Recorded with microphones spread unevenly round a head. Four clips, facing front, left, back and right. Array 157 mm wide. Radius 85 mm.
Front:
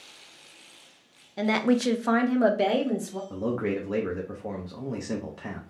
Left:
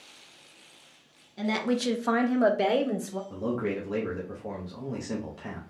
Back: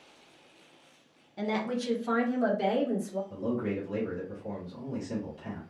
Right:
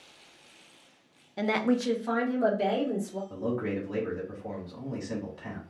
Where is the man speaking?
15° left, 0.8 m.